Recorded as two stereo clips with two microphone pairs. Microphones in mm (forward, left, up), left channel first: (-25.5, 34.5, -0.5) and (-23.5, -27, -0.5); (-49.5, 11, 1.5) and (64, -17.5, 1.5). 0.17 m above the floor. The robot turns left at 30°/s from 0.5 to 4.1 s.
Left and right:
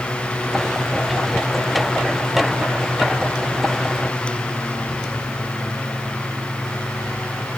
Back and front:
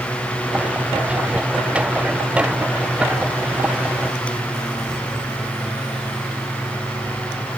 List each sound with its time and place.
Only background noise.